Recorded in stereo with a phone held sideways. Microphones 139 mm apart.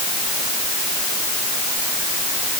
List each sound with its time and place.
Only background noise.